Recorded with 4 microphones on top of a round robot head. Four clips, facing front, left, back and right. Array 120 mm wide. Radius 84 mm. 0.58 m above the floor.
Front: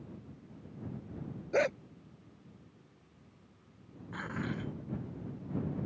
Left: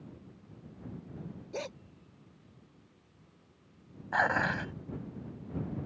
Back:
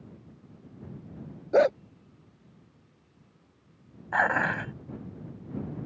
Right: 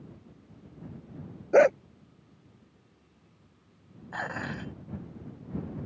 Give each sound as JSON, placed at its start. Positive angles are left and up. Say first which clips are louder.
{"t": 1.5, "sound": "a dog barking", "louder": "right 21 dB, back 9 dB", "azimuth_deg": -125}
{"t": 4.1, "sound": "dishes clattering", "louder": "left 6 dB, back 13 dB", "azimuth_deg": 160}